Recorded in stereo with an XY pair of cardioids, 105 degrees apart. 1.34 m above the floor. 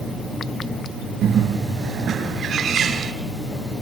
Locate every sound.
1.2 s a bird: 65° right, 3 m